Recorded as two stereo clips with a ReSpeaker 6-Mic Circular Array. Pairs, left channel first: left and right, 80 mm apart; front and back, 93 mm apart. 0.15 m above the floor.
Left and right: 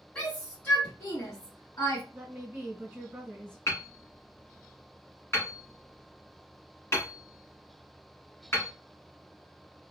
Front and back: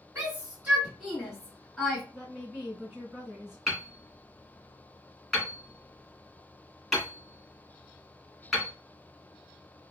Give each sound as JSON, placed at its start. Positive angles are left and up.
{"t": 0.1, "sound": "a shout", "azimuth_deg": 140, "distance_m": 1.7}
{"t": 2.1, "sound": "a woman speaking", "azimuth_deg": -105, "distance_m": 1.7}
{"t": 3.7, "sound": "hammering", "azimuth_deg": 95, "distance_m": 1.6}